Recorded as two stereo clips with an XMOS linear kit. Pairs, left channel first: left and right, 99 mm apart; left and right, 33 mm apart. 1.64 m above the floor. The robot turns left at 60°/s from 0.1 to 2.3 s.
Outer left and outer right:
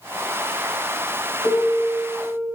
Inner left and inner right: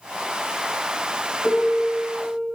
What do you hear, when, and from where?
1.4 s a piano: 125° right, 1.2 m; by 2.5 s straight behind, 1.2 m